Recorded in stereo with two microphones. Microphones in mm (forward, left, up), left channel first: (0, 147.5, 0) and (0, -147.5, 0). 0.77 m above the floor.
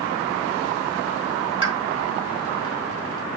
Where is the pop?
20° right (ahead or behind), 3.5 m.